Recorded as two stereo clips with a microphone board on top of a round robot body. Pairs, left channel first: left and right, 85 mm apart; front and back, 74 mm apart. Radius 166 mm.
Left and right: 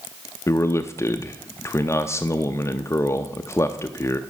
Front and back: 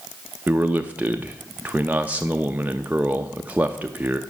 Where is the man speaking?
125° left, 0.7 m.